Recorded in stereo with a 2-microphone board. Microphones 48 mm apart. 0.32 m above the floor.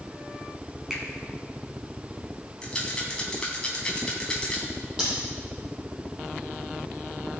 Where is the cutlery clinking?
15° right (ahead or behind), 5.5 m.